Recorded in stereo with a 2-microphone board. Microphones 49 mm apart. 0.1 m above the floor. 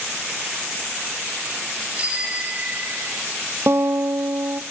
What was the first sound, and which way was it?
A bicycle bell, 25° right (ahead or behind).